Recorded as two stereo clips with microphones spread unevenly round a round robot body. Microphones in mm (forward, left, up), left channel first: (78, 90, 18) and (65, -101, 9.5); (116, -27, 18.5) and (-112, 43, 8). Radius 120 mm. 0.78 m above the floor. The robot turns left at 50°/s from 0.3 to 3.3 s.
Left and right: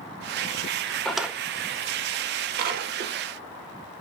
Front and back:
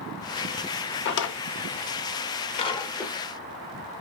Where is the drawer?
5° left, 0.6 m; by 3.1 s 100° right, 0.6 m.